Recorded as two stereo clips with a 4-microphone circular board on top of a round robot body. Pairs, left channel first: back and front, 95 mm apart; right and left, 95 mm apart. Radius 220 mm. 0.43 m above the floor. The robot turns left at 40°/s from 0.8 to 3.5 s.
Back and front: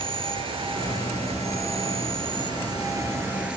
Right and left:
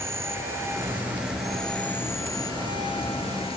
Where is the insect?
30° left; by 3.6 s 80° right.